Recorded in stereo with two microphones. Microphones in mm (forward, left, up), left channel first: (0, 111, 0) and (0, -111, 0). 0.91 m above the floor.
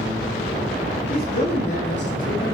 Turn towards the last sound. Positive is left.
turn(degrees=60)  # may be behind; listen again after turning